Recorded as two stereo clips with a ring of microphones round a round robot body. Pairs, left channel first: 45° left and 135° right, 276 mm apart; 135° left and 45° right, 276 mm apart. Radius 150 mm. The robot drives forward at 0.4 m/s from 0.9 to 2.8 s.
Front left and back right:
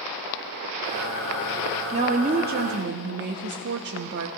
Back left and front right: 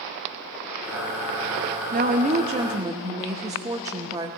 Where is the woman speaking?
80° right, 0.8 m; by 4.3 s 115° right, 0.9 m.